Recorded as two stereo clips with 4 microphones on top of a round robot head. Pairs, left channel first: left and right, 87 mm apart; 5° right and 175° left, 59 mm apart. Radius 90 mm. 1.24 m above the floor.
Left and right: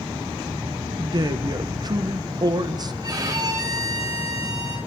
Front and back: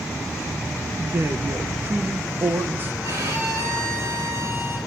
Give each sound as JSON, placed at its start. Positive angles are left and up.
{"t": 1.0, "sound": "a man speaking", "azimuth_deg": -130, "distance_m": 1.4}
{"t": 3.0, "sound": "a violin", "azimuth_deg": -135, "distance_m": 6.0}